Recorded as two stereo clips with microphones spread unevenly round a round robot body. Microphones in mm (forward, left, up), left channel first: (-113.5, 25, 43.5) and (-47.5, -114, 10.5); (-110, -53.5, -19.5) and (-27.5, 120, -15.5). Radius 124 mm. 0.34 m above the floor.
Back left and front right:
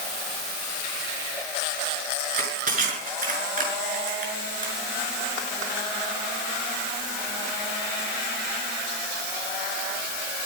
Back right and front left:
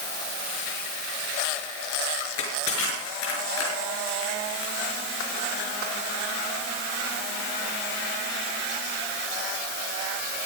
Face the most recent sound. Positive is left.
turn(degrees=-90)